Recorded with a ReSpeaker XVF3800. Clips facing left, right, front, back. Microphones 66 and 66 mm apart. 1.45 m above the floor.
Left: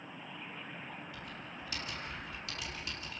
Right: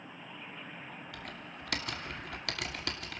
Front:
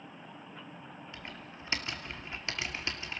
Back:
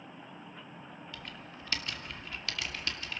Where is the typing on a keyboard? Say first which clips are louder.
Right 1 dB, even; 65° right, 2.5 m.